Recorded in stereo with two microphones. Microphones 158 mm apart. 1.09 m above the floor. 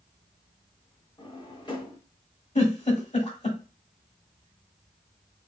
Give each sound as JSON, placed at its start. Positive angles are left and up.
{"t": 1.2, "sound": "a drawer", "side_deg": 30, "distance_m": 0.9}
{"t": 2.5, "sound": "a giggle", "side_deg": 45, "distance_m": 1.4}